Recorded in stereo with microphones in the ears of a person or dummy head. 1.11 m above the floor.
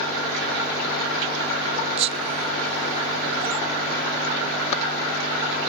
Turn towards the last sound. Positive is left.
turn(degrees=-30)  # may be behind; listen again after turning